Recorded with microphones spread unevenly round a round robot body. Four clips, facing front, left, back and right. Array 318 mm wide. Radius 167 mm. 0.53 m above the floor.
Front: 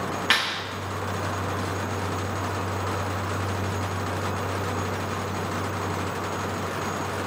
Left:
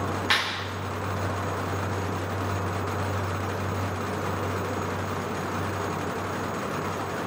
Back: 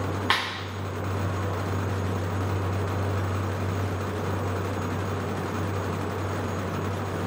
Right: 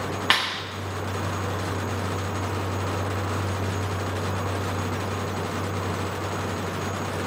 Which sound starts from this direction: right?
A clap, at 0.3 s.